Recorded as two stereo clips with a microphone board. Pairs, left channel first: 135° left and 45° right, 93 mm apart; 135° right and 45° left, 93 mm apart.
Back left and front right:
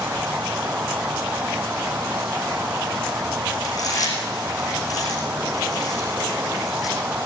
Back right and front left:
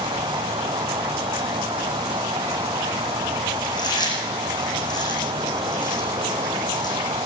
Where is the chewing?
175° right, 8.5 m.